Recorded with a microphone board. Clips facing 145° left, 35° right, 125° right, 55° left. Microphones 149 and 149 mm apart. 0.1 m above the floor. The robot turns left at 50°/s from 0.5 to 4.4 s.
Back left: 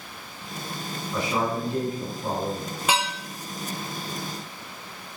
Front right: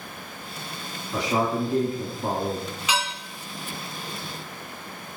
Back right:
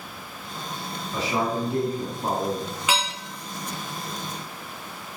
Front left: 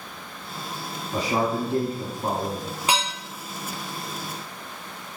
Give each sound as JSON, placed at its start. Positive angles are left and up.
{"t": 1.1, "sound": "a man speaking", "azimuth_deg": 35, "distance_m": 3.0}
{"t": 2.9, "sound": "dishes clattering", "azimuth_deg": 110, "distance_m": 2.5}